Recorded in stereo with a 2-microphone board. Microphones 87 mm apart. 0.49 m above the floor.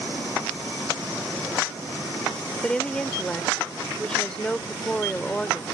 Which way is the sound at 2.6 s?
10° left (ahead or behind).